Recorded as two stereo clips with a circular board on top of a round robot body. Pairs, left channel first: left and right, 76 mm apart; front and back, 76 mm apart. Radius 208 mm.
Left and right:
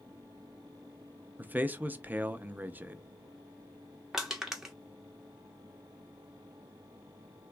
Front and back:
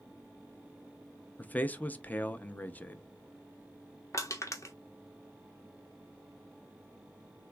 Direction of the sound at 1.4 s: 45° right.